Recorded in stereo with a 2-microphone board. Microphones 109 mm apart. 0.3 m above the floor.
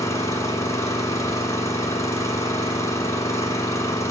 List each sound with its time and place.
0.0 s an engine running: 30° left (ahead or behind), 1.7 m